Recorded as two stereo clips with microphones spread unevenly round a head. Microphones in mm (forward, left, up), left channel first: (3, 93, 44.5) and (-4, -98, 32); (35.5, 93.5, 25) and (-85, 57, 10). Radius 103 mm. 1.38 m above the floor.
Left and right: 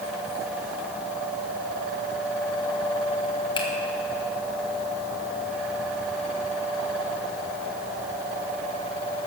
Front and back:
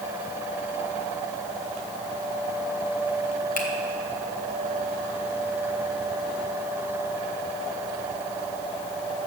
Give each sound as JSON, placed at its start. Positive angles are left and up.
{"t": 3.6, "sound": "a finger snap", "azimuth_deg": 20, "distance_m": 1.6}